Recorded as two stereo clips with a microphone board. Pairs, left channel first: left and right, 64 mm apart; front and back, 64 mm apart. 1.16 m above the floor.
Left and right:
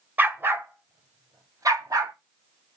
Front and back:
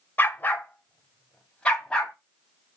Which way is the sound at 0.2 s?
40° right.